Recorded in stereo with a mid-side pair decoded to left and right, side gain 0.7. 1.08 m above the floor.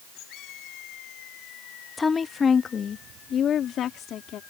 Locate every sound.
2.0 s a woman speaking: 15° left; by 4.4 s 50° left